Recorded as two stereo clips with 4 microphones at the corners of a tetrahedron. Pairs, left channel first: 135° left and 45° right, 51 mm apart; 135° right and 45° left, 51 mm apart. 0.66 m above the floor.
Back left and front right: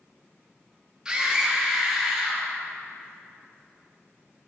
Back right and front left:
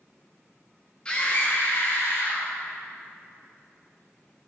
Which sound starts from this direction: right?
A scream, at 1.1 s.